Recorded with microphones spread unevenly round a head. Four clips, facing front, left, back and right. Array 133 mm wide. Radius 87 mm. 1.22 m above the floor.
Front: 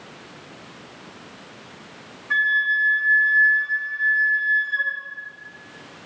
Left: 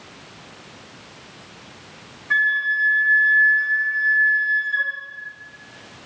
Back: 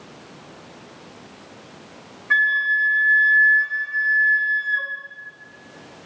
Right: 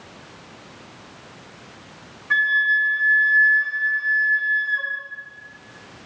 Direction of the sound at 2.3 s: 170° right.